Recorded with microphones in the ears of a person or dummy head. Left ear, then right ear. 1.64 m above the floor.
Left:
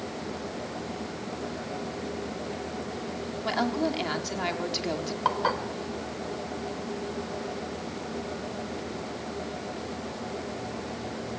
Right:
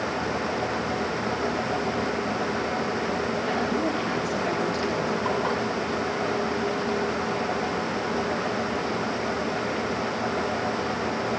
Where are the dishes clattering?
40° left (ahead or behind), 4 m.